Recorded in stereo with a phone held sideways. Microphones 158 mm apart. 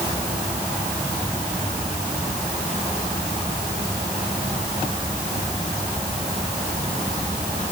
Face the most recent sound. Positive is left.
No sound to turn to.